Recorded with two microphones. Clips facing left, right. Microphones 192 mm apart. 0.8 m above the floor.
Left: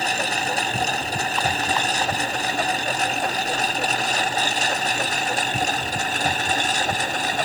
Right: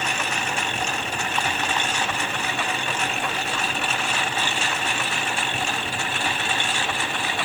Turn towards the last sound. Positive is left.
turn(degrees=40)  # may be behind; listen again after turning